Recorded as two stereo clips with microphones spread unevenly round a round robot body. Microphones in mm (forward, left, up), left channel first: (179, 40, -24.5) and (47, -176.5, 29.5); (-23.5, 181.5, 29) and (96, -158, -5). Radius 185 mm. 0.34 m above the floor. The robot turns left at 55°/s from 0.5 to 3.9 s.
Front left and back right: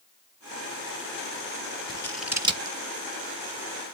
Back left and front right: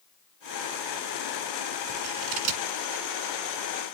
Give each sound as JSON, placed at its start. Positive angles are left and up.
{"t": 1.9, "sound": "scissors", "azimuth_deg": -15, "distance_m": 1.9}